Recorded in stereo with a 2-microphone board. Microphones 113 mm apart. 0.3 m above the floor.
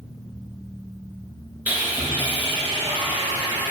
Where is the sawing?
15° right (ahead or behind), 3 m.